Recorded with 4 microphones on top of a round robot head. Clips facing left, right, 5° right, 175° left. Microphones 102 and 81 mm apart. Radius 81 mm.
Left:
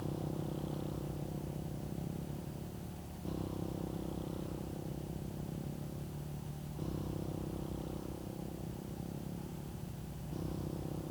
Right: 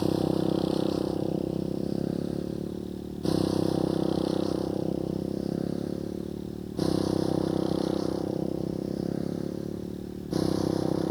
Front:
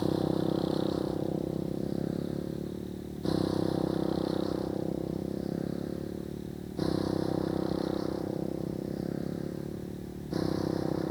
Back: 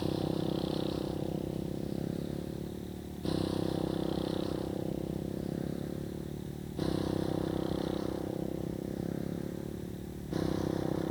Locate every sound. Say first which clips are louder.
0.0 s a motorcycle: right 15 dB, front 4 dB; 75° right; by 11.1 s 85° right